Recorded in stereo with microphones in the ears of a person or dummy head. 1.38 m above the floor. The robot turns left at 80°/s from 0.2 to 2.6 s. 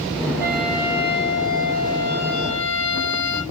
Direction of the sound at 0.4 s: 155° right.